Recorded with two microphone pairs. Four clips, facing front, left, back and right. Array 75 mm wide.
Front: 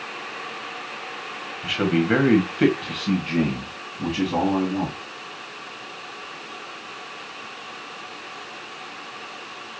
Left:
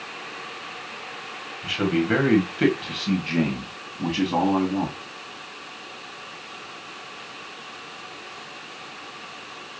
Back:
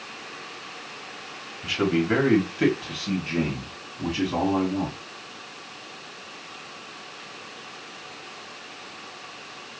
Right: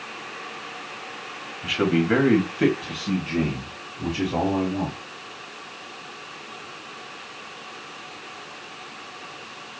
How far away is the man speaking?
About 1.4 m.